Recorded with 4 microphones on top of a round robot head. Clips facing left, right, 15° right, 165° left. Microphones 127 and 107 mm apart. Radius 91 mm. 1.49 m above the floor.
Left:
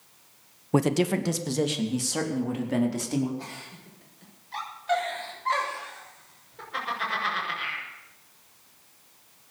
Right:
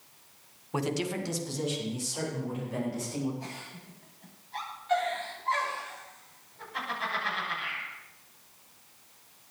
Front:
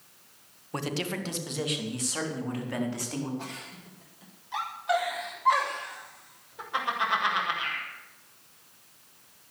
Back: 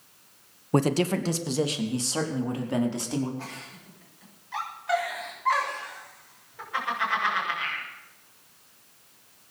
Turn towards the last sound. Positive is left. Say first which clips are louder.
# left 1 dB, even
turn(degrees=60)